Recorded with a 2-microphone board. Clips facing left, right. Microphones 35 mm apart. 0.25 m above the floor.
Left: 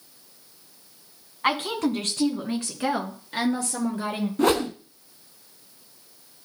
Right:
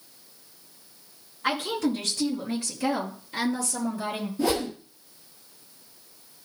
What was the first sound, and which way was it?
A woman speaking, 55° left (ahead or behind).